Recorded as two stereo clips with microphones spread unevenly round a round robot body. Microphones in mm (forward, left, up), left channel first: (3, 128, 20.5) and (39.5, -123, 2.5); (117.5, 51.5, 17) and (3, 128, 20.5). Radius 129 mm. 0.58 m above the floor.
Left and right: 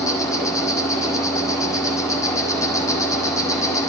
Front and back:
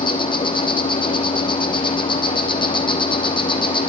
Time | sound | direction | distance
0.0 | an insect | 20° left | 3.5 m